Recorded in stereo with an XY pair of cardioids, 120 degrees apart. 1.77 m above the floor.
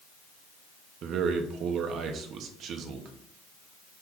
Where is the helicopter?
No helicopter in this recording.